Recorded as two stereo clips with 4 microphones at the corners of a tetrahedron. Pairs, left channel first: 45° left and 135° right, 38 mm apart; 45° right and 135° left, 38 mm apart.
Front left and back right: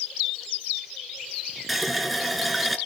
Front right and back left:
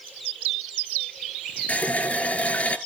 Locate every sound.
1.7 s a running tap: 45° right, 1.1 m